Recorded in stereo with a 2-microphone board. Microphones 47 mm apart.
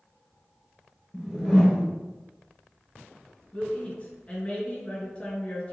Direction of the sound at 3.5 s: 30° left (ahead or behind).